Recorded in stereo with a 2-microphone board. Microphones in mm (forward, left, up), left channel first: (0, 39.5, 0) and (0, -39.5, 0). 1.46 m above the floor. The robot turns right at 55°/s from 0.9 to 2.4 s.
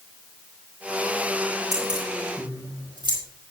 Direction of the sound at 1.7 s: 55° right (ahead or behind).